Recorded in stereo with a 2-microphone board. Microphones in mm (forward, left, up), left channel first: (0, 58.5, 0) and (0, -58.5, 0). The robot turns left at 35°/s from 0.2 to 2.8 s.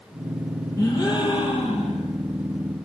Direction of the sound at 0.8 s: 155° left.